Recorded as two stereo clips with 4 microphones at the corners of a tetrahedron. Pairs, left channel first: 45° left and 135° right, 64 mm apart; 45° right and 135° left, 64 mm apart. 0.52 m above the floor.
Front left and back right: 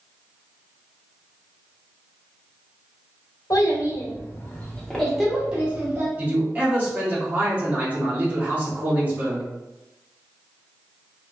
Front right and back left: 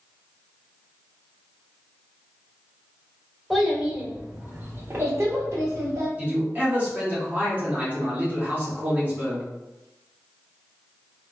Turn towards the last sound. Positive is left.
turn(degrees=180)